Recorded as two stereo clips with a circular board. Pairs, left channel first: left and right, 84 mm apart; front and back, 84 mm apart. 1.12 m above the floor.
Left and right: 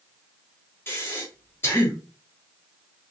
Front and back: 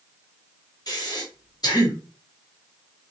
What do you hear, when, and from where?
0.9 s breathing: 30° left, 1.0 m